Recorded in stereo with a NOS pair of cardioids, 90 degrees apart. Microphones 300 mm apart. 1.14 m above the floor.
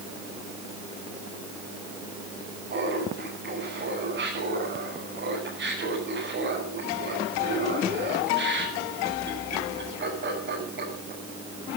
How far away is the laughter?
About 8.5 m.